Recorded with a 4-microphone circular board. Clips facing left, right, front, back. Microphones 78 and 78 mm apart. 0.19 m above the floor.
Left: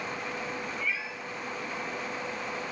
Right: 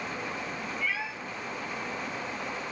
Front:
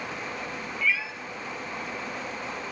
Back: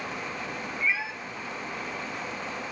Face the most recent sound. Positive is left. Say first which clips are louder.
# right 4 dB, front 1 dB
turn(degrees=-115)